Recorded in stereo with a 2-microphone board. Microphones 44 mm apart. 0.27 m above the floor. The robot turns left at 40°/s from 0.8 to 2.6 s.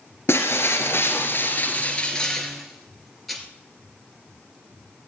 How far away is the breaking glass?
About 2.5 m.